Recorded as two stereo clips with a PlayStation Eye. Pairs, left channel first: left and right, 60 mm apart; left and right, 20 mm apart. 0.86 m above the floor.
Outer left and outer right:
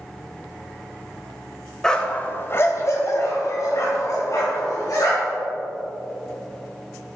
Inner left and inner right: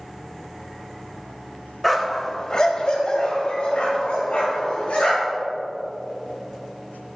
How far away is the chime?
No chime in this recording.